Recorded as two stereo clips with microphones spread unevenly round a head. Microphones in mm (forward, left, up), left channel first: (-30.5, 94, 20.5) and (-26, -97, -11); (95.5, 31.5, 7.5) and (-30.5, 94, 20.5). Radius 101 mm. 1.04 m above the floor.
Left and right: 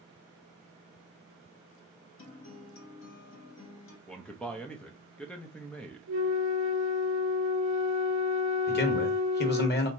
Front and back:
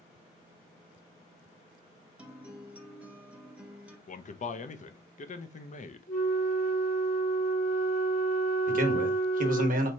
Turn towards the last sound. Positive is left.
turn(degrees=130)